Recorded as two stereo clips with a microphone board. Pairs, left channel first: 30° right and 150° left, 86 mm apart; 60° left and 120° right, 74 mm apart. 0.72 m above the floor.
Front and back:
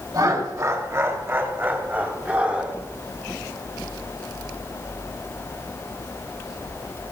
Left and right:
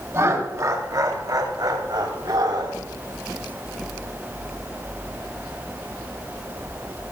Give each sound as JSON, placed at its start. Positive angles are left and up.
{"t": 0.1, "sound": "laughter", "azimuth_deg": -170, "distance_m": 2.5}